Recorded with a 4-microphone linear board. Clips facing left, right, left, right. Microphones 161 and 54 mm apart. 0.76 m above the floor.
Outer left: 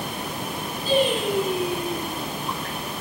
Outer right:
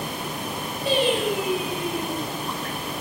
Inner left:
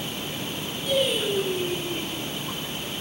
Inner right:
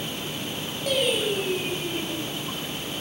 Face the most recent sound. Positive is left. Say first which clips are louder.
# outer left 1 dB, even
turn(degrees=-75)  # may be behind; listen again after turning